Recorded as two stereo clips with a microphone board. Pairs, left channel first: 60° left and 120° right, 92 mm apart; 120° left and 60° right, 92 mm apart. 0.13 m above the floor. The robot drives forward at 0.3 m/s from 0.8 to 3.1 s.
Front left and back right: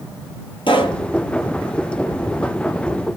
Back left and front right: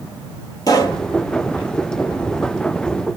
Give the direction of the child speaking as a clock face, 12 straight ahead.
I don't hear a child speaking.